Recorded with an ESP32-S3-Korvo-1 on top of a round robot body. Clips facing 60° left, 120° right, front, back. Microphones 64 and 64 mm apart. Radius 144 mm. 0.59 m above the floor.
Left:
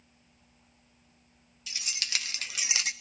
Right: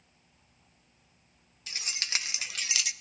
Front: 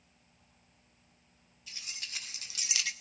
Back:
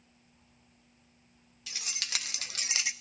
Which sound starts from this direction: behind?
Keys jangling, at 1.7 s.